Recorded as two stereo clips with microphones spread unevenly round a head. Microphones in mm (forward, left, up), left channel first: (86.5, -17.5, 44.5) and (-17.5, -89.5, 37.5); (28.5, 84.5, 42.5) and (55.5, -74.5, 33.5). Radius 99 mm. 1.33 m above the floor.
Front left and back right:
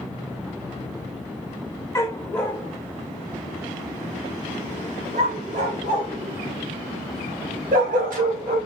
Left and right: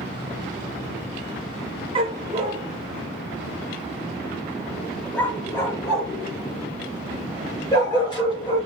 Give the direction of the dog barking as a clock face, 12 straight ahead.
1 o'clock.